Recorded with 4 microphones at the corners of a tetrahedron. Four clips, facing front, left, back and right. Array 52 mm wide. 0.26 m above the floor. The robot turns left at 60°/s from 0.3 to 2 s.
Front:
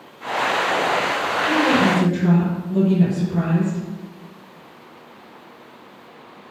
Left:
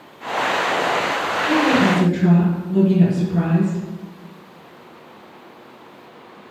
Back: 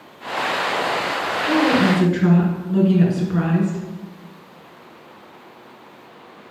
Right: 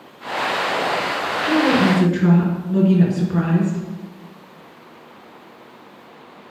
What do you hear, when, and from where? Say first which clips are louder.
1.5 s a woman speaking: even, back 1 dB; 110° right, 4 m; by 3.8 s 140° right, 4 m